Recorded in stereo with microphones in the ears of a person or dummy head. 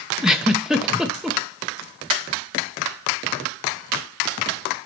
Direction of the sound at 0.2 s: Centre (ahead or behind).